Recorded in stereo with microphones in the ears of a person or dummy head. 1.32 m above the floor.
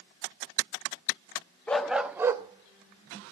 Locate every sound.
1.7 s a dog barking: 10° left (ahead or behind), 0.7 m; by 3.3 s 40° right (ahead or behind), 1.1 m